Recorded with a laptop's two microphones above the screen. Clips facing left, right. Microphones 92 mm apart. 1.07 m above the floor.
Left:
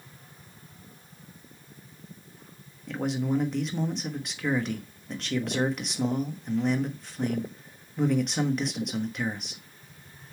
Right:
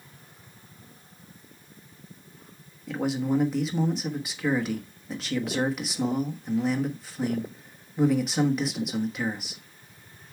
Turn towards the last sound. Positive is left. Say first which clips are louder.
# right 2 dB
turn(degrees=-5)  # may be behind; listen again after turning